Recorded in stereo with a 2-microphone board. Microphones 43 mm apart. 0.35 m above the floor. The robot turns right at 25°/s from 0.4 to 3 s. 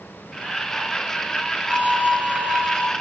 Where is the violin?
150° right, 2.5 m; by 2.9 s 120° right, 2.5 m.